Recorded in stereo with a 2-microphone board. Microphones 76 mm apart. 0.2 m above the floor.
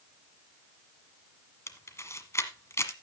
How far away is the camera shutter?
About 1.3 m.